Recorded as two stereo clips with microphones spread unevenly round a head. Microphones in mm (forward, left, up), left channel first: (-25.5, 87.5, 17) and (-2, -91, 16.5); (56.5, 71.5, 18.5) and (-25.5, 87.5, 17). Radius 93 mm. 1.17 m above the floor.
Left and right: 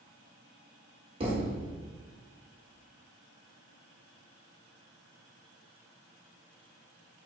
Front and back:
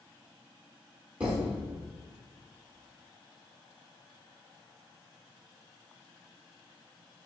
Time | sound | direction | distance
1.2 | a thud | 120° right | 1.4 m